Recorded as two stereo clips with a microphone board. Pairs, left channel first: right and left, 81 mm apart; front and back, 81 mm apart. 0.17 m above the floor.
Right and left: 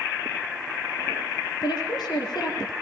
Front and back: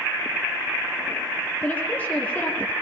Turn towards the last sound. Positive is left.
turn(degrees=-70)